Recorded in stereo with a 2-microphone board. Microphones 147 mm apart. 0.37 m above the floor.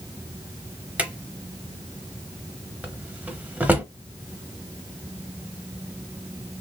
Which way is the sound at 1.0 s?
10° right (ahead or behind).